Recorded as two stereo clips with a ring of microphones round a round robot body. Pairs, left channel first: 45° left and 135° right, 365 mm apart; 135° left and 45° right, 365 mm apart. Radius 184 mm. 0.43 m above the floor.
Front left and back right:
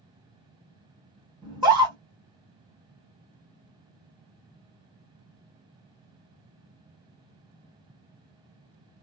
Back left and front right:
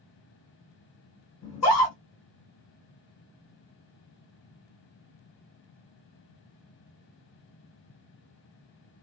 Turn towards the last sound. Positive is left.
turn(degrees=155)